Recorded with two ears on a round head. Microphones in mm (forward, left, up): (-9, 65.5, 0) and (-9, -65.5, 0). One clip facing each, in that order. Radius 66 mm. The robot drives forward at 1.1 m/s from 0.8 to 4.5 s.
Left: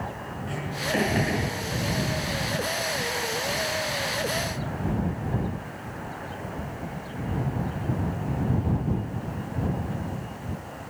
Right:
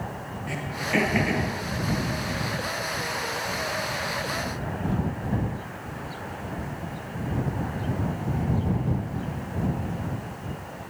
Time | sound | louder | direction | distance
0.5 | throat clearing | right 1 dB | 10° right (ahead or behind) | 8.5 m